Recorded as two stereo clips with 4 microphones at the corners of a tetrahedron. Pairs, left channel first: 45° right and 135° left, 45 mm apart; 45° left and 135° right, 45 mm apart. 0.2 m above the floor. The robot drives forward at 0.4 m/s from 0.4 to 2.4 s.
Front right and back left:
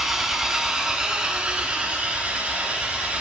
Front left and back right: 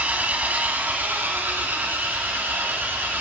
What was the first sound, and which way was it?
An engine running, 150° right.